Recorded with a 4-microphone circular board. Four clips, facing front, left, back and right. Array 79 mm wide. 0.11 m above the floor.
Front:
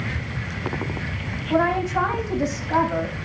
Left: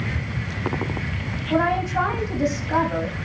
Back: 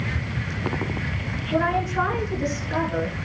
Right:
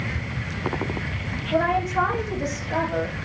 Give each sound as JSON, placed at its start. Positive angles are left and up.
{"t": 1.5, "sound": "a woman speaking", "azimuth_deg": 35, "distance_m": 5.0}